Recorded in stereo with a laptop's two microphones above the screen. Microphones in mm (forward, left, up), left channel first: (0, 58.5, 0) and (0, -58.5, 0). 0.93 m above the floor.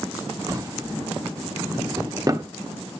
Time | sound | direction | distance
0.5 | a drawer | 30° right (ahead or behind) | 1.0 m